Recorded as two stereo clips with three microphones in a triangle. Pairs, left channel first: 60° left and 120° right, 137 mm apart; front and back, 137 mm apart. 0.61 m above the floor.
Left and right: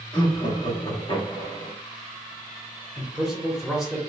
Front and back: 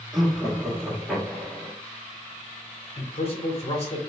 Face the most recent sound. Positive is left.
turn(degrees=-30)